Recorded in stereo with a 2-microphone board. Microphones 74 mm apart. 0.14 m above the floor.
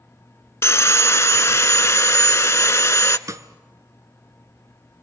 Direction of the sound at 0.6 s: 40° left (ahead or behind).